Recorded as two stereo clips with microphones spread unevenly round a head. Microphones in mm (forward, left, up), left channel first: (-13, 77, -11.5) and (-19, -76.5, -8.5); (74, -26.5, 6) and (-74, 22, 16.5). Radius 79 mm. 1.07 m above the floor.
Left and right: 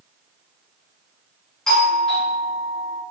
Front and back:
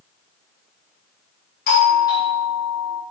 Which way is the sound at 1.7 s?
Straight ahead.